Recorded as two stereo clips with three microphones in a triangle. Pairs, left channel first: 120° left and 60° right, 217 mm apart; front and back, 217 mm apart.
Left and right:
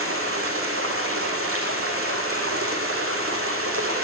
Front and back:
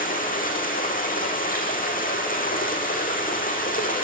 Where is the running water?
50° right, 3 m.